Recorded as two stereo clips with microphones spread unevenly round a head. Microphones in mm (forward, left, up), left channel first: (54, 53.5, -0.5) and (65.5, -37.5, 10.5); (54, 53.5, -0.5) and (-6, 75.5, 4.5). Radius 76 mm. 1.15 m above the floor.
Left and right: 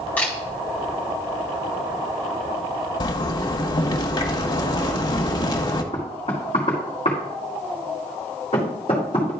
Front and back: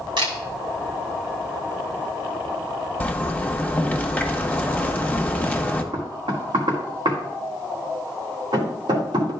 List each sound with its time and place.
0.2 s a camera shutter: 175° left, 1.9 m
3.0 s a zipper: 55° left, 1.2 m
5.9 s knocking: 155° left, 1.9 m